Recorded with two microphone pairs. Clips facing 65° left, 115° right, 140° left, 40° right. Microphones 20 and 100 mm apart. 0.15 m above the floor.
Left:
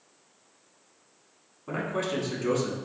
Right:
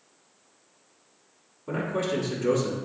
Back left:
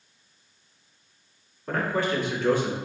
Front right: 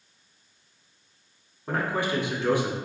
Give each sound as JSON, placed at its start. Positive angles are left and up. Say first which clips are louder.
{"t": 1.7, "sound": "a man speaking", "louder": "right 2 dB, back left 1 dB", "azimuth_deg": 0, "distance_m": 1.1}